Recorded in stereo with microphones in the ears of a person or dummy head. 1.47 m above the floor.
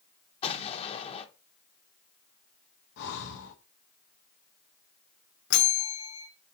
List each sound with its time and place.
0.4 s an explosion: 35° left (ahead or behind), 1.2 m
3.0 s breathing: 65° left (ahead or behind), 1.6 m
5.5 s a bell: 60° left (ahead or behind), 1.9 m